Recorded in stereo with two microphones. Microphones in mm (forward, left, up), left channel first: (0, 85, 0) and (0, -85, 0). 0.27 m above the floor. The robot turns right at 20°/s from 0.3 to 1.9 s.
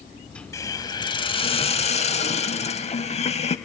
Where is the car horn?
I don't hear a car horn.